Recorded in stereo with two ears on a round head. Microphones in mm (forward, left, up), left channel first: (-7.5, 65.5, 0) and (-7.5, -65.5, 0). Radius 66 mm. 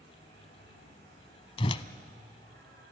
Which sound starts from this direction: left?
A whoosh, at 1.6 s.